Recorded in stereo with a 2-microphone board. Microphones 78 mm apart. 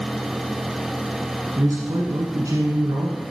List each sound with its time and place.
1.6 s a man speaking: 45° right (ahead or behind), 1.4 m